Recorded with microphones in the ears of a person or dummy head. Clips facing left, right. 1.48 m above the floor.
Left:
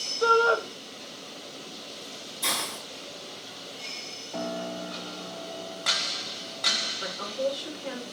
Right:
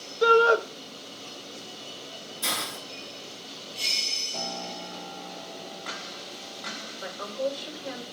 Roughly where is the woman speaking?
Left.